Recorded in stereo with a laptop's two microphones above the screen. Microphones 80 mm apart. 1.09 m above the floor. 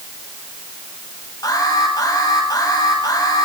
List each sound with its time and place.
1.4 s an alarm: 55° left (ahead or behind), 8.5 m